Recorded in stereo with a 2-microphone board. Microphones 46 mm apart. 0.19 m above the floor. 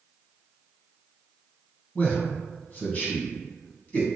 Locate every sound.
1.9 s a man speaking: 30° left (ahead or behind), 1.2 m